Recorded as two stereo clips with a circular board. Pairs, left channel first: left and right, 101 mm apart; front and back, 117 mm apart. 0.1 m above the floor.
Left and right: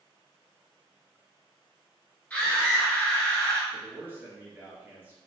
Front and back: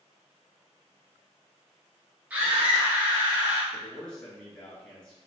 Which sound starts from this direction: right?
A man speaking, at 3.7 s.